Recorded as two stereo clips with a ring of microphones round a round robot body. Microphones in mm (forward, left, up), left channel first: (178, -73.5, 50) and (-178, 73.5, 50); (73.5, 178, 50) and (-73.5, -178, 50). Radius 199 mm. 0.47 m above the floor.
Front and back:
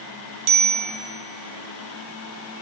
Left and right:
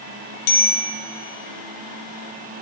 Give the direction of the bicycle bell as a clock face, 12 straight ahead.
8 o'clock.